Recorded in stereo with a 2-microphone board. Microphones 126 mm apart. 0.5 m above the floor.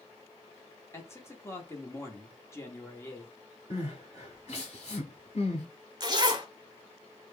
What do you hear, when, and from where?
0.9 s a man speaking: 20° left (ahead or behind), 0.9 m
3.7 s crying: 55° left (ahead or behind), 2.0 m
6.0 s a zipper: 30° right (ahead or behind), 0.7 m